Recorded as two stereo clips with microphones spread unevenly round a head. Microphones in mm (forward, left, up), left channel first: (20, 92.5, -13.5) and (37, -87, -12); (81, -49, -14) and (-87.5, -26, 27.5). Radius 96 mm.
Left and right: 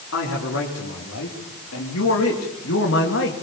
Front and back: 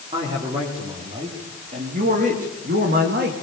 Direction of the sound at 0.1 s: 105° left.